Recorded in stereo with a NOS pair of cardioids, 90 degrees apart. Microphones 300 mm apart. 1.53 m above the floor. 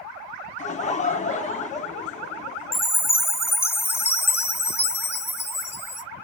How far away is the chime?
About 1.1 m.